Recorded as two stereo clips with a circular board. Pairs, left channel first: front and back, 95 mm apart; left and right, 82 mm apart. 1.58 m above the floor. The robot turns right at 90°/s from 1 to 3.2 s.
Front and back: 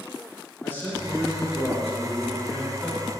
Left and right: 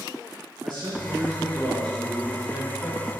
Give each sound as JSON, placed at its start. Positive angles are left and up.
{"t": 0.6, "sound": "a man speaking", "azimuth_deg": -70, "distance_m": 2.5}